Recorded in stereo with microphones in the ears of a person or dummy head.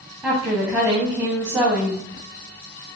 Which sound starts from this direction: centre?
A woman speaking, at 0.2 s.